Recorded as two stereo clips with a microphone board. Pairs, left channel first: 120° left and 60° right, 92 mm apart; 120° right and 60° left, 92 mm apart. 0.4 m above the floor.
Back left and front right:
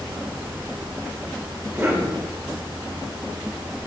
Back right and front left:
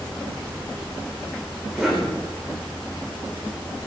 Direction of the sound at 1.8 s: 25° right.